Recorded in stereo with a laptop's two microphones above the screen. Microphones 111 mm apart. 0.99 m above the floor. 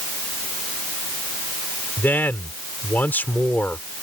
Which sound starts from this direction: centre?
A man speaking, at 2.0 s.